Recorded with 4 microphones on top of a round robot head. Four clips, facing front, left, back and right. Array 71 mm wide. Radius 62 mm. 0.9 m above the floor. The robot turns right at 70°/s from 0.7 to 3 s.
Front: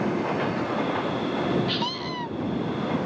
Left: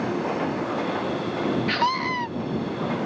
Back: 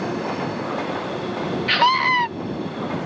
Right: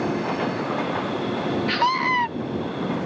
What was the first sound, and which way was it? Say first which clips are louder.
A scream: right 3 dB, back 12 dB; 170° left.